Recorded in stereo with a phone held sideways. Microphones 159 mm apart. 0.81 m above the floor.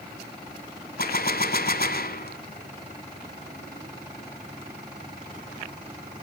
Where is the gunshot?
65° left (ahead or behind), 1.3 m.